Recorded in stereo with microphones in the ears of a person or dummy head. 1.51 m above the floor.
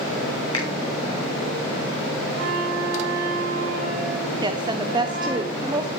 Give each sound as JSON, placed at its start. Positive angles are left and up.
{"t": 0.5, "sound": "a finger snap", "side_deg": 30, "distance_m": 2.0}
{"t": 2.4, "sound": "a flute", "side_deg": -55, "distance_m": 4.0}
{"t": 4.4, "sound": "a woman speaking", "side_deg": -15, "distance_m": 0.9}